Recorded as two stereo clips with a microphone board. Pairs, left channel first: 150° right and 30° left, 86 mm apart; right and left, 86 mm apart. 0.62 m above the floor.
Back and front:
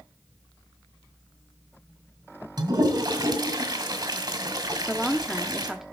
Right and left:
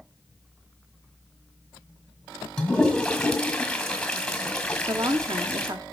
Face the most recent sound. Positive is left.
turn(degrees=115)